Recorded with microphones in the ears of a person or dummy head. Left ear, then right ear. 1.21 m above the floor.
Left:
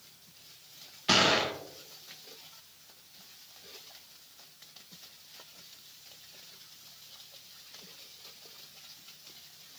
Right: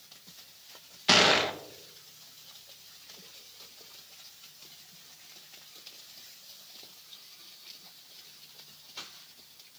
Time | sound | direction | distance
1.1 | a gunshot | 15° right (ahead or behind) | 0.5 m